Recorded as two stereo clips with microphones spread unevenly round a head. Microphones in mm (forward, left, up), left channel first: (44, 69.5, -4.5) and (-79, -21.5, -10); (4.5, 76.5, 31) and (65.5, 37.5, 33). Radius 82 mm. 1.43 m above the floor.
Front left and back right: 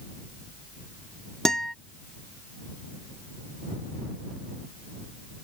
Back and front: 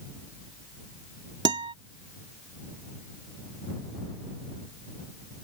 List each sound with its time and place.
1.4 s a guitar: 50° right